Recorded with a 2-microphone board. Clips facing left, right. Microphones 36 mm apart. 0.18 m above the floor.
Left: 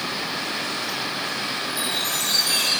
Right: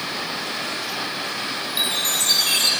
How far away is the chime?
About 3.5 m.